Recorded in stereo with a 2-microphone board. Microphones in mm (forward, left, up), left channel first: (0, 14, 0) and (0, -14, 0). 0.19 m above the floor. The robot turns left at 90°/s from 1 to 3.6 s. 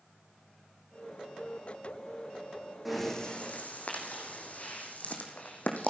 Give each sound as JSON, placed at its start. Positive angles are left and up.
{"t": 2.9, "sound": "breathing", "side_deg": -5, "distance_m": 3.0}